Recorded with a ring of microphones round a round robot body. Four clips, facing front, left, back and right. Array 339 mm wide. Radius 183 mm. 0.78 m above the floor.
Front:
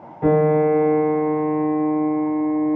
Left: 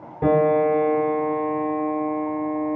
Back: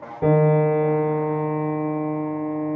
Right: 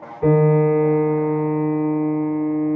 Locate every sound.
0.2 s a piano: 140° left, 1.8 m